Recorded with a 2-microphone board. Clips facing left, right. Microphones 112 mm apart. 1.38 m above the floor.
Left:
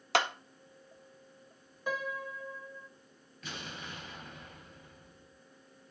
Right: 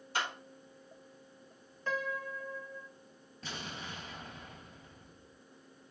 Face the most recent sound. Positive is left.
turn(degrees=-30)  # may be behind; listen again after turning